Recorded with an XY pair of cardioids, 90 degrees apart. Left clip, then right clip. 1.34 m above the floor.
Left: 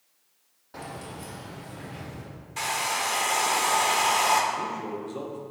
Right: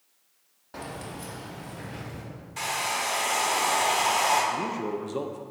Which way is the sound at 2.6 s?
20° left.